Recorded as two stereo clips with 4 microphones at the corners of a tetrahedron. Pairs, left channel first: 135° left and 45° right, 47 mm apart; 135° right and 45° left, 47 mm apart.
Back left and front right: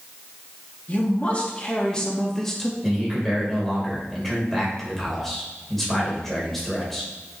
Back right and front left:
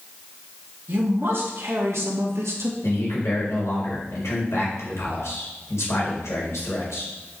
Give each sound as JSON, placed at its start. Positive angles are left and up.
{"t": 0.9, "sound": "a man speaking", "azimuth_deg": 85, "distance_m": 2.0}
{"t": 2.8, "sound": "a man speaking", "azimuth_deg": -140, "distance_m": 4.0}